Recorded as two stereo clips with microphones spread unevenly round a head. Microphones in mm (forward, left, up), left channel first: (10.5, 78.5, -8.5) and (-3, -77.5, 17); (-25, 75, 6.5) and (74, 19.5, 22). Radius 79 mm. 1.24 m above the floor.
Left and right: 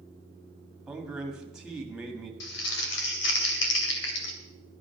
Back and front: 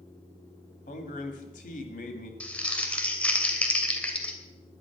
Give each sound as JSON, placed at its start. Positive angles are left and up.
{"t": 0.9, "sound": "a man speaking", "azimuth_deg": 180, "distance_m": 2.0}
{"t": 2.4, "sound": "crumpling", "azimuth_deg": 70, "distance_m": 2.5}